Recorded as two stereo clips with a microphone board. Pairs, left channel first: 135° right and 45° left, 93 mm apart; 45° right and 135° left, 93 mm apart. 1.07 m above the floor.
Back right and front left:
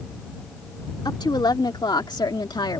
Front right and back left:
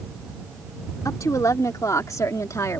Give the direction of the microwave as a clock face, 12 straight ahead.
I don't hear a microwave.